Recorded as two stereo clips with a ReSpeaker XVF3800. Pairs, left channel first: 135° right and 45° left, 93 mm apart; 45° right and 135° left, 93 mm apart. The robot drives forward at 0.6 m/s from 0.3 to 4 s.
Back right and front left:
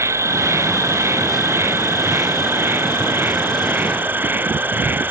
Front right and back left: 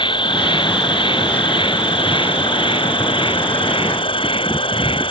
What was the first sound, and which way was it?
An insect, 15° right.